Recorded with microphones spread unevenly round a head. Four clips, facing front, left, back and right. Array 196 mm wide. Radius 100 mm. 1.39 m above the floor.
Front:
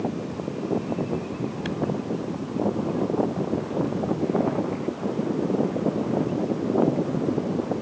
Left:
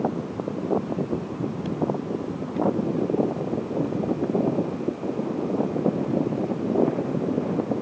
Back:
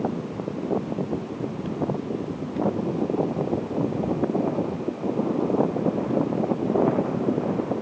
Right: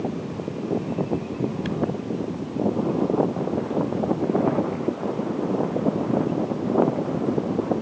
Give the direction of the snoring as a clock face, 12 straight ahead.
No snoring in this recording.